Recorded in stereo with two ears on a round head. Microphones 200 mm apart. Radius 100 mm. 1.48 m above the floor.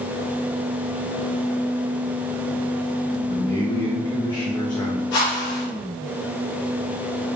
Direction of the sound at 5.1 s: 75° left (ahead or behind).